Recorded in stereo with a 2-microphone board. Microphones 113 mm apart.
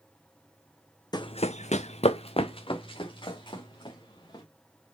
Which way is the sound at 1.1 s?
35° left (ahead or behind).